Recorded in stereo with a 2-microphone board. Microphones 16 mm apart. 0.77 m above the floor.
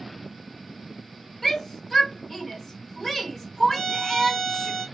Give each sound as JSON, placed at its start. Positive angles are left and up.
{"t": 1.4, "sound": "a shout", "side_deg": 20, "distance_m": 1.5}
{"t": 3.7, "sound": "a violin", "side_deg": 10, "distance_m": 1.2}